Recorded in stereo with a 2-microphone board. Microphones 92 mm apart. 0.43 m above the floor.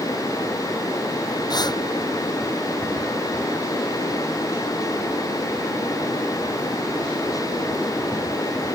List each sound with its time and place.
1.5 s breathing: 50° left (ahead or behind)